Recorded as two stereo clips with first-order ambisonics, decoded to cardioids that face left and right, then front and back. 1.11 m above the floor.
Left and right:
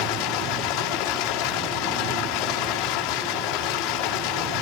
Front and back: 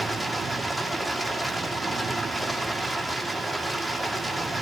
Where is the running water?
100° left, 2.5 m.